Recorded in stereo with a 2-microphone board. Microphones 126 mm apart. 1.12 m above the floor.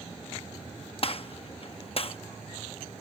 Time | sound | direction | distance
1.0 | a gunshot | 50° left (ahead or behind) | ?